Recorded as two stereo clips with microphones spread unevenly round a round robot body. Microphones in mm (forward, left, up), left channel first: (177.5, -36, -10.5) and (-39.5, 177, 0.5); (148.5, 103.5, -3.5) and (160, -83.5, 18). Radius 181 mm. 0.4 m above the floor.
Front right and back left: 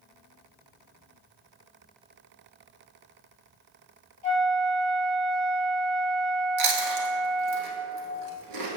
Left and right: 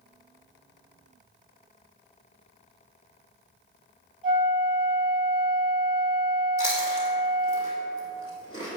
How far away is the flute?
About 1.7 m.